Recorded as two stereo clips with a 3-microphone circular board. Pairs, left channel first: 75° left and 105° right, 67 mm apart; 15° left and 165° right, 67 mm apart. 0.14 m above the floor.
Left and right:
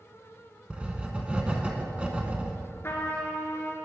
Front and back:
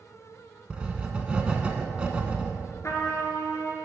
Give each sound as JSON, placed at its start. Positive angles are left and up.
{"t": 0.7, "sound": "writing", "azimuth_deg": -130, "distance_m": 1.0}
{"t": 2.8, "sound": "a trumpet", "azimuth_deg": 35, "distance_m": 1.6}